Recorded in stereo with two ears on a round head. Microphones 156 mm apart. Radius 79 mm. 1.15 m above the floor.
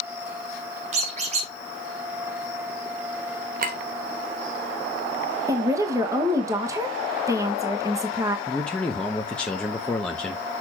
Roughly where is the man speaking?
Centre.